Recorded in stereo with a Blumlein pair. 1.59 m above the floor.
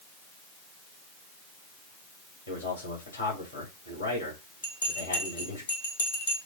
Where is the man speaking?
65° left, 4.5 m.